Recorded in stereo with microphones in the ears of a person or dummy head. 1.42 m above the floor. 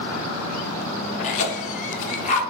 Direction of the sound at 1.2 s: 45° left (ahead or behind).